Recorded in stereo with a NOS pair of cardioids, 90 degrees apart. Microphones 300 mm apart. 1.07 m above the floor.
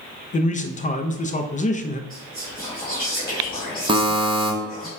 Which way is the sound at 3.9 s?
15° right.